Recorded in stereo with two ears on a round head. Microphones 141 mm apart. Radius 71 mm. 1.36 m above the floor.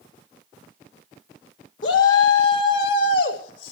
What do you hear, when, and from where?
1.8 s a shout: 85° left, 4.5 m; by 3.7 s 75° left (ahead or behind), 5 m